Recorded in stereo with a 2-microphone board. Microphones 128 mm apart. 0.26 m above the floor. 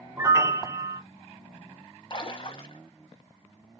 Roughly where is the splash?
Left.